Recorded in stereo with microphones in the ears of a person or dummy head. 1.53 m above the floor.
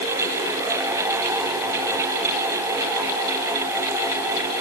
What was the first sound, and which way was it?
Only background noise.